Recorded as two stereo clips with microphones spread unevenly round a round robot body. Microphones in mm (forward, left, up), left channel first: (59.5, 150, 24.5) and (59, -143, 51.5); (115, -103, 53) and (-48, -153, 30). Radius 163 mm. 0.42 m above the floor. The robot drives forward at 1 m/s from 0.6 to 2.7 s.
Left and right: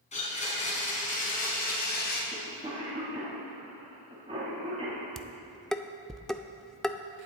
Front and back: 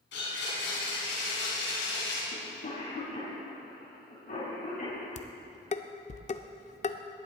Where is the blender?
25° left, 4.5 m; by 2.2 s 35° left, 3 m.